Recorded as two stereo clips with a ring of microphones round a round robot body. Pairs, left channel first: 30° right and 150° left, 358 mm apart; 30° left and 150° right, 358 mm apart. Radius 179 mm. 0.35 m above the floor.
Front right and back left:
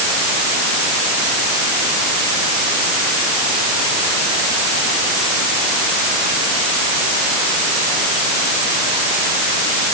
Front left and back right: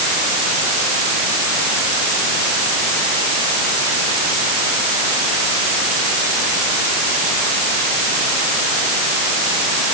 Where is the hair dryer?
No hair dryer in this recording.